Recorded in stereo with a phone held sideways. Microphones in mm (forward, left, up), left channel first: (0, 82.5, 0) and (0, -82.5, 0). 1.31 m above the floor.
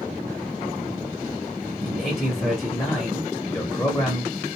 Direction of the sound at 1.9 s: 10° left (ahead or behind).